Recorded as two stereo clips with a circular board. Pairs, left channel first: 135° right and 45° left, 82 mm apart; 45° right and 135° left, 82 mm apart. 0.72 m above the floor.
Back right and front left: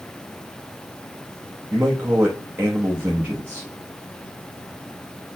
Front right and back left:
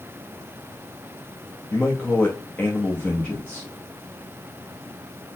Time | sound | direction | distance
1.7 | a man speaking | 10° left | 0.8 m